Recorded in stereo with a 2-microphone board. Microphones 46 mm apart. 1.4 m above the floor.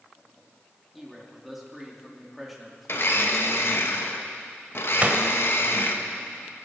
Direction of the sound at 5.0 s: 35° right (ahead or behind).